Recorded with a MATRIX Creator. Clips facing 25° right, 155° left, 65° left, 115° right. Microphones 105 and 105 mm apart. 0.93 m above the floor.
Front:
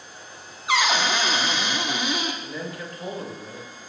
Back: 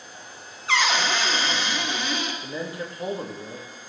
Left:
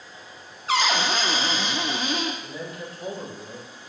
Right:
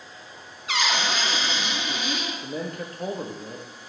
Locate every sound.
0.7 s a cupboard door: 45° left, 0.6 m
2.4 s a man speaking: 140° right, 0.8 m